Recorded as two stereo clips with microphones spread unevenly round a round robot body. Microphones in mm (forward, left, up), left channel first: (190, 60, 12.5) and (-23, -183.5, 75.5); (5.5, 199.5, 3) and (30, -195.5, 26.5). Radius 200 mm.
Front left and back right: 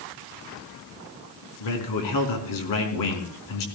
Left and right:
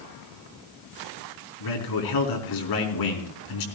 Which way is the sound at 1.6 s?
60° left.